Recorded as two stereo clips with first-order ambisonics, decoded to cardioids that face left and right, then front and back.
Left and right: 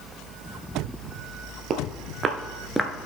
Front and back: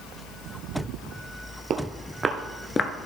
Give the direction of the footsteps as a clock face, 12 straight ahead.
5 o'clock.